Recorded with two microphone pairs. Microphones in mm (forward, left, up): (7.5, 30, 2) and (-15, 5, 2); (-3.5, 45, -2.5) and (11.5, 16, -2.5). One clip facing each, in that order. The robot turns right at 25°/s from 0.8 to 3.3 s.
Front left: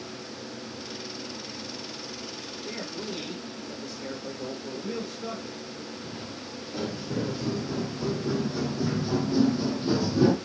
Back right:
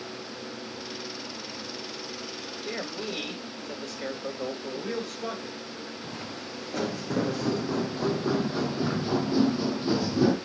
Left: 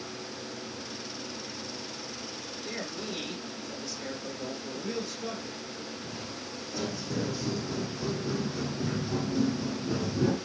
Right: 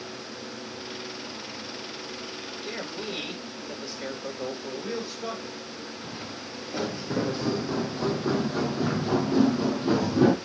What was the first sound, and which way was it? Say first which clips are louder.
A man speaking: back right 2 dB, right 2 dB; 140° right.